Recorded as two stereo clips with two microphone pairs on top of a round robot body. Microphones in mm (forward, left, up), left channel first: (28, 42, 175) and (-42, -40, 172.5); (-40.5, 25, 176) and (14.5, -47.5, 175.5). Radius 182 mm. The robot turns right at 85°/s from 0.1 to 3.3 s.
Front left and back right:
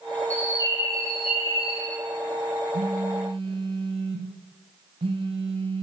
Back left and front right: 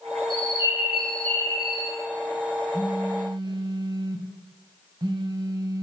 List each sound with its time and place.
0.3 s a bird: 25° right, 1.9 m; by 2.0 s 120° left, 1.9 m
2.7 s a phone buzzing: 140° right, 0.6 m; by 5.8 s 95° right, 0.6 m